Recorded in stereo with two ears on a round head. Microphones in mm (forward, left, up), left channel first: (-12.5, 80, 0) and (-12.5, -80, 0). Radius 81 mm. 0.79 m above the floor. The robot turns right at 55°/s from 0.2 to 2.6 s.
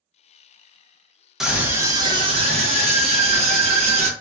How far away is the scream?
About 0.7 m.